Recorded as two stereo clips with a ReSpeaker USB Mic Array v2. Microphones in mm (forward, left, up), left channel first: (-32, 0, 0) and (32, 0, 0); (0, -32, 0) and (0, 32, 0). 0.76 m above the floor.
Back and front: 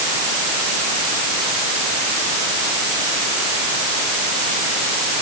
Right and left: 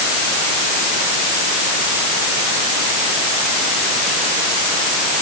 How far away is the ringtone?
No ringtone in this recording.